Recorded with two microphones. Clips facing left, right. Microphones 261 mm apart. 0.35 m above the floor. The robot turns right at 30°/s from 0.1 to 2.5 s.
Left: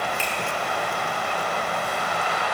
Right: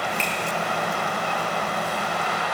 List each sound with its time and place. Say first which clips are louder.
0.2 s a finger snap: right 1 dB; 10° left (ahead or behind), 4.5 m; by 0.3 s 5° left (ahead or behind), 4.5 m